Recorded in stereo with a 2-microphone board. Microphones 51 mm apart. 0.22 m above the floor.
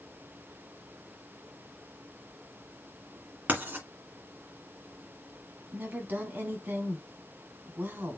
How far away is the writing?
About 2.0 m.